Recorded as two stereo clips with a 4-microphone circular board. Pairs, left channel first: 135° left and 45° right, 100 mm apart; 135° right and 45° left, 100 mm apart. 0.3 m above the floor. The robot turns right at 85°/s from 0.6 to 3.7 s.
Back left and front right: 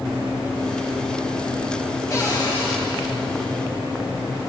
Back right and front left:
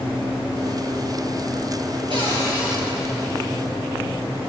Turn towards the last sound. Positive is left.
turn(degrees=-150)